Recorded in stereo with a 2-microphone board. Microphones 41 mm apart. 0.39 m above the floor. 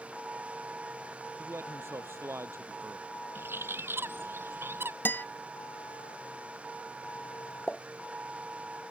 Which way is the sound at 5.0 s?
60° left (ahead or behind).